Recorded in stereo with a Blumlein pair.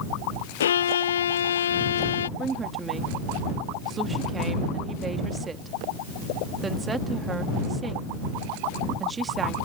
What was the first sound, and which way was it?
A violin, 65° left.